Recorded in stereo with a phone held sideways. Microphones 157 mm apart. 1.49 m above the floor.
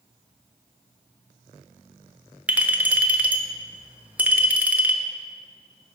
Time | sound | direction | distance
2.5 | a clink | 10° right (ahead or behind) | 0.6 m